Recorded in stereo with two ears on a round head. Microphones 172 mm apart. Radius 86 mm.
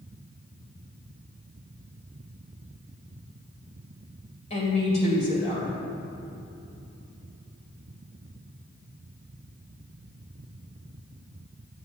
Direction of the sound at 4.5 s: 35° left (ahead or behind).